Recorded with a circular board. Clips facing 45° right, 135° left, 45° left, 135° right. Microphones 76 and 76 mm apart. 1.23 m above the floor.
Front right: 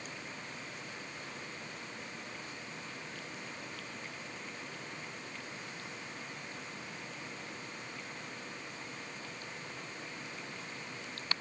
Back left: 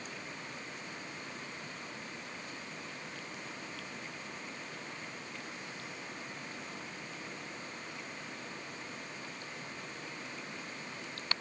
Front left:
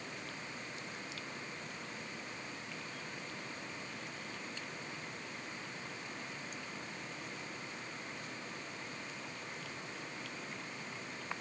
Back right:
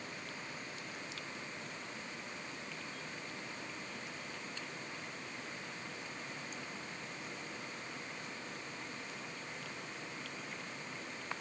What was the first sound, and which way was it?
Only background noise.